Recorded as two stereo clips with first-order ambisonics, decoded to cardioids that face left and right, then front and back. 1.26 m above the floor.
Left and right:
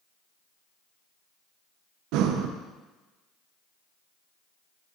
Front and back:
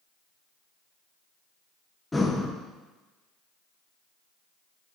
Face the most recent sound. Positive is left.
turn(degrees=-80)